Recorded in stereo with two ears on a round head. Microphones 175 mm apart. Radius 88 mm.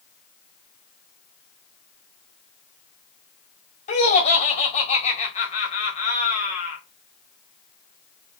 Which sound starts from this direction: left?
Laughter, at 3.9 s.